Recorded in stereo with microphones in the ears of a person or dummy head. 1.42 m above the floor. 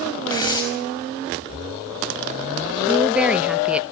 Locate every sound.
0.3 s tearing paper: 20° left (ahead or behind), 5.5 m
2.9 s a woman speaking: 5° right (ahead or behind), 1.2 m